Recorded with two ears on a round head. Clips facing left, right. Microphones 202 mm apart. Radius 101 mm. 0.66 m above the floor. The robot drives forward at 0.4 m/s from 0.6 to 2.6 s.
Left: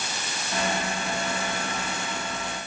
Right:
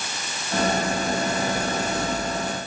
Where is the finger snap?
I don't hear a finger snap.